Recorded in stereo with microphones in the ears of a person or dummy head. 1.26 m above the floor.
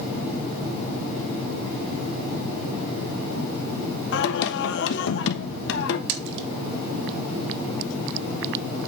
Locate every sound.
4.1 s singing: 70° left (ahead or behind), 1.2 m
6.1 s a splash: 70° right (ahead or behind), 1.5 m